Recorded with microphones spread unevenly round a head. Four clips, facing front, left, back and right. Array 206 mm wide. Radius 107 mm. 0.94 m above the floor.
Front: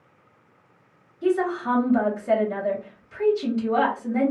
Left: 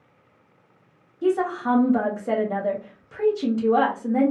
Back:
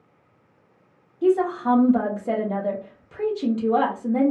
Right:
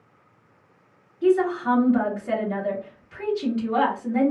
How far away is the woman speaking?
About 0.8 m.